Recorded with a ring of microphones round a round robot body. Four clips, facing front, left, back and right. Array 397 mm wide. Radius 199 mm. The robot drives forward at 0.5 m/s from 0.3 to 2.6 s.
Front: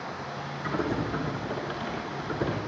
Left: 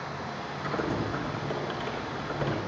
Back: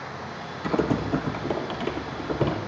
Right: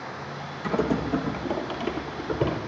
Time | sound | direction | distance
0.6 | typing on a keyboard | 150° right | 4.5 m